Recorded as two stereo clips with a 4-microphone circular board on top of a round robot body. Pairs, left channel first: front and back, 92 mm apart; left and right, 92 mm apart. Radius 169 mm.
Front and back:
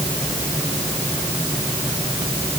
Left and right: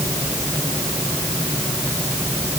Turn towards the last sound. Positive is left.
No sound to turn to.